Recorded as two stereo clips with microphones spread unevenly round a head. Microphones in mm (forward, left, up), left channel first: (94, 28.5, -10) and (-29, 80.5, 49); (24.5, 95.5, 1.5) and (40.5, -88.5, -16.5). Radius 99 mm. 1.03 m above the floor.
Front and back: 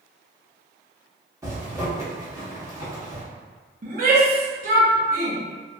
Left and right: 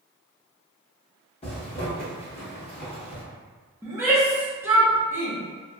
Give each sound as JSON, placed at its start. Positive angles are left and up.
{"t": 1.4, "sound": "a zipper", "azimuth_deg": 140, "distance_m": 0.7}
{"t": 3.8, "sound": "a shout", "azimuth_deg": -155, "distance_m": 0.7}